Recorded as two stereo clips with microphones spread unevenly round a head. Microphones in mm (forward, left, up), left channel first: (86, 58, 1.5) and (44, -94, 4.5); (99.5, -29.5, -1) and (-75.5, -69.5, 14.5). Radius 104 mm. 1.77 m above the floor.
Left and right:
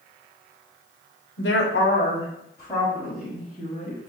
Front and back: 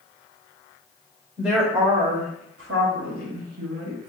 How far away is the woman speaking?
About 0.9 m.